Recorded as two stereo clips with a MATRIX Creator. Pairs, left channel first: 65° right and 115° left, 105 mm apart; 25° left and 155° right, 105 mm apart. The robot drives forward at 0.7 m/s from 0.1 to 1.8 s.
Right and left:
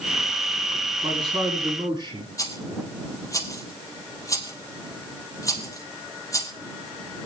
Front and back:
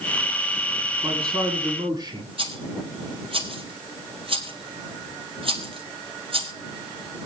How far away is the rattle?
About 1.9 m.